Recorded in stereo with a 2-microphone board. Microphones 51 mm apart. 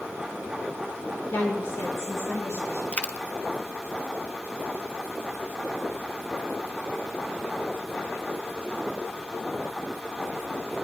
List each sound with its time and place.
1.3 s a woman speaking: 45° left (ahead or behind), 1.6 m; by 2.8 s 75° left (ahead or behind), 3 m
2.9 s a dropped coin: 25° left (ahead or behind), 0.7 m